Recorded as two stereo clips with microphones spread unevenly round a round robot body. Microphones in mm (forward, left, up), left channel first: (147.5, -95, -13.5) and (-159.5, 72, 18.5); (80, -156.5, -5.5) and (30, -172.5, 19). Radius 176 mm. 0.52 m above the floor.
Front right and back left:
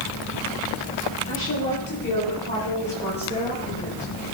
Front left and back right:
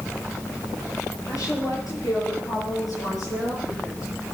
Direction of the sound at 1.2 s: 30° left.